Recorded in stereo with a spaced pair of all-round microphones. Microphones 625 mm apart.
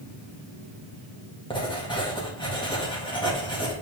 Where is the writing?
5° left (ahead or behind), 1.8 m.